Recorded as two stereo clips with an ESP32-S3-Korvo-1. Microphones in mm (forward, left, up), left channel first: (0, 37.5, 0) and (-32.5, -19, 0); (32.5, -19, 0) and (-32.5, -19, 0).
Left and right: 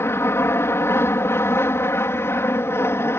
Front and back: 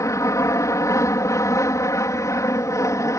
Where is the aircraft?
20° left.